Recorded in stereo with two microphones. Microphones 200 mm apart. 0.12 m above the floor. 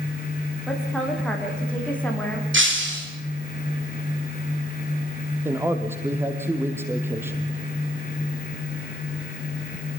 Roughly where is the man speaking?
Centre.